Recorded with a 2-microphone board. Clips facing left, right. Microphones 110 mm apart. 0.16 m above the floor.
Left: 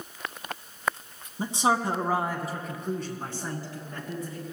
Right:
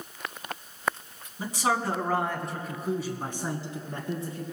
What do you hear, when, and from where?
1.4 s a man speaking: 30° left (ahead or behind), 1.2 m; by 4.4 s 35° right (ahead or behind), 1.6 m